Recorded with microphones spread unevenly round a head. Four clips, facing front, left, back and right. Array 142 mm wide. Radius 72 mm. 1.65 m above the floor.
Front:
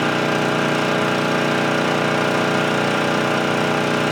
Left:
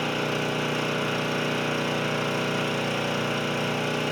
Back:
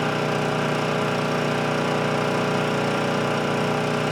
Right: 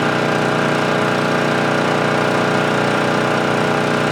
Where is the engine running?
65° right, 1.1 m.